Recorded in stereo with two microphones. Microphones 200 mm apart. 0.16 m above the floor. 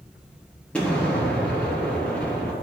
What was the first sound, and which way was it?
An explosion, 5° left (ahead or behind).